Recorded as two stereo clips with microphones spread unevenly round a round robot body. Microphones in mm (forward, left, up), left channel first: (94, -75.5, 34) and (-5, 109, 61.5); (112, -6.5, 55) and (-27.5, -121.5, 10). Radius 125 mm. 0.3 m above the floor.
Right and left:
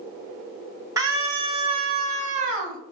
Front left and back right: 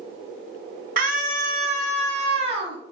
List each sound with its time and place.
1.0 s a scream: 165° right, 2.5 m; by 2.8 s 170° left, 2 m